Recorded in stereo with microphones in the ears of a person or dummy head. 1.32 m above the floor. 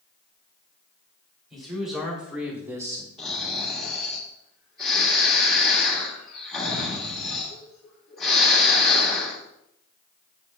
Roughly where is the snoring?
Centre.